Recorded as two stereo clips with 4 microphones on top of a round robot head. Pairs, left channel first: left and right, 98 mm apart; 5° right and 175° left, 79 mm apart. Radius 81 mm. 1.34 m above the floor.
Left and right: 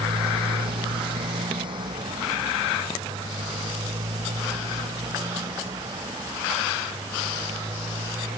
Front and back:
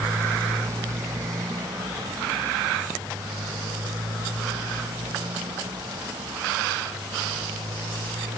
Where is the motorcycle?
120° right; by 8.4 s 145° right.